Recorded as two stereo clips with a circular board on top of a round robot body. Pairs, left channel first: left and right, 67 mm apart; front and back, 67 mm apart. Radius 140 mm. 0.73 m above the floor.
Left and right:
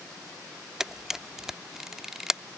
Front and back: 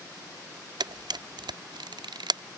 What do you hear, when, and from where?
0.8 s a camera shutter: 175° right